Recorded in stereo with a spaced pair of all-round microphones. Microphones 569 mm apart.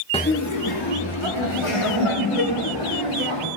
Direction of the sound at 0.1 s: 10° left (ahead or behind).